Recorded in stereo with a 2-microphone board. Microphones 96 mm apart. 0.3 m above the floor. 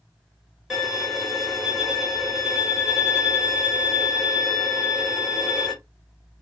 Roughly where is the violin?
Centre.